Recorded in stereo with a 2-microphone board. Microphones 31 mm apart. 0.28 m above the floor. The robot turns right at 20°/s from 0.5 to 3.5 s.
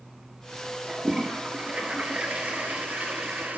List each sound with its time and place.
0.9 s a toilet flushing: 155° right, 2.5 m; by 3.6 s 100° right, 2.5 m